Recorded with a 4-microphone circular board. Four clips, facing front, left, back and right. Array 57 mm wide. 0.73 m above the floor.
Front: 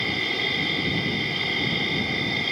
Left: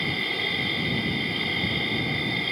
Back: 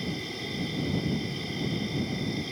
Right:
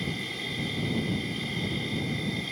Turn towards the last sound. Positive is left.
turn(degrees=35)